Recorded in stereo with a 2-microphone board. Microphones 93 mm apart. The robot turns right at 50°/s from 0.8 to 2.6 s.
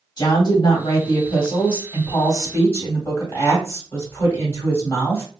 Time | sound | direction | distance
0.2 | a woman speaking | 60° left | 2.0 m